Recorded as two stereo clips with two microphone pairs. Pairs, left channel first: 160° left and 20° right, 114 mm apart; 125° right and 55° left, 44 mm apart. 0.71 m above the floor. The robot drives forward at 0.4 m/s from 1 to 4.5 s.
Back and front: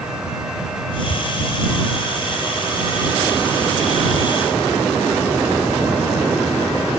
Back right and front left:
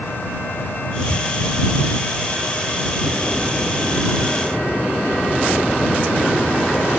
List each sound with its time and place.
1.1 s a cupboard door: 45° left, 3 m